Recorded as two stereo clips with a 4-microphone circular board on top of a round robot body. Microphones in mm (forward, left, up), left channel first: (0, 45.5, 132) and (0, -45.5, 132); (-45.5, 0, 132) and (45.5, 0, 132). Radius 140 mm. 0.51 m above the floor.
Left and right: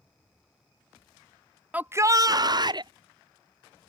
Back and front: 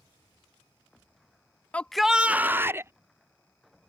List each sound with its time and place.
1.7 s a shout: 135° right; by 2.9 s 60° right